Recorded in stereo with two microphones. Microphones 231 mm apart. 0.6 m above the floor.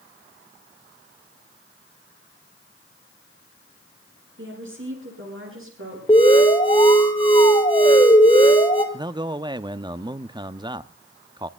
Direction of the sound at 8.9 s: 20° right (ahead or behind).